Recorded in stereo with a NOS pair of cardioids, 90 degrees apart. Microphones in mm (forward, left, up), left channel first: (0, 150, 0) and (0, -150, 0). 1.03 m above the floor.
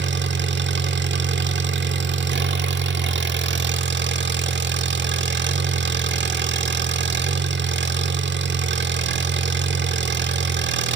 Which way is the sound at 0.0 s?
40° right.